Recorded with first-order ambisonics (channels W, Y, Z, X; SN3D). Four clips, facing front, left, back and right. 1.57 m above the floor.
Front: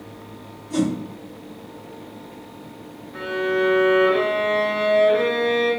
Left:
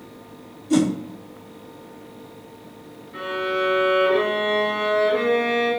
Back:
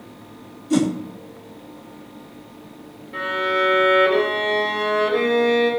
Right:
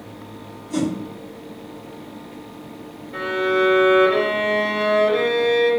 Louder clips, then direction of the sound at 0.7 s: Left 4 dB, back 3 dB; 135° left.